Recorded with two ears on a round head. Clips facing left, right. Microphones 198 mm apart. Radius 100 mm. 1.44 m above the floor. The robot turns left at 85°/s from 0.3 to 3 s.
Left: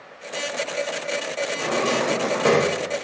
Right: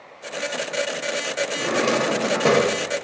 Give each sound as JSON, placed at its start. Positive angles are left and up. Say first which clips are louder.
{"t": 1.6, "sound": "a drawer", "louder": "right 2 dB", "side_deg": -20, "distance_m": 0.5}